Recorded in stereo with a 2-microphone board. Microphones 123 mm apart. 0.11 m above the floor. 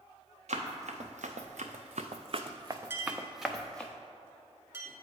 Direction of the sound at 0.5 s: 65° right (ahead or behind).